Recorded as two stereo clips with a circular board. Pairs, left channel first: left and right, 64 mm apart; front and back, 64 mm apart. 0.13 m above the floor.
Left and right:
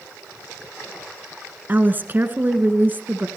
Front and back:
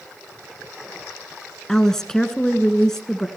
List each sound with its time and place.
1.7 s a woman speaking: 75° right, 1.6 m